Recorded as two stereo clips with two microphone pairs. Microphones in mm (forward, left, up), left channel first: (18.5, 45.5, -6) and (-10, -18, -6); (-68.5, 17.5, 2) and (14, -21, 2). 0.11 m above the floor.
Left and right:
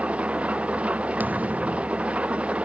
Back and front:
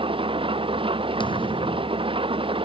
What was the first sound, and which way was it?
An engine running, 40° right.